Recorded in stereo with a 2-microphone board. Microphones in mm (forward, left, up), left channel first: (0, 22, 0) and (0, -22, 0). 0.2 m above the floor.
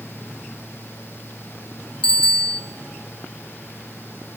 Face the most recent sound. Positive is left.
turn(degrees=20)  # may be behind; listen again after turning